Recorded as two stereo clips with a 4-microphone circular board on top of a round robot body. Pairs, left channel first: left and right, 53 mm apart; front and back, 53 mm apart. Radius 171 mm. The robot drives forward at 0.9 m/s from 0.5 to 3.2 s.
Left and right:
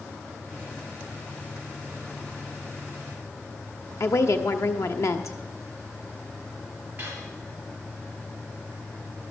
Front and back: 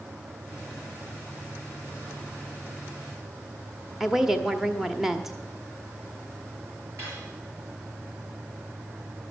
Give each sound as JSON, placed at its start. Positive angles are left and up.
{"t": 4.0, "sound": "a woman speaking", "azimuth_deg": 95, "distance_m": 1.4}
{"t": 7.0, "sound": "cutlery clinking", "azimuth_deg": -150, "distance_m": 6.5}